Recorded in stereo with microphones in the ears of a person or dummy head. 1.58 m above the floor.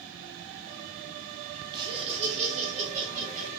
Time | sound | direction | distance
1.7 | laughter | 25° right (ahead or behind) | 0.6 m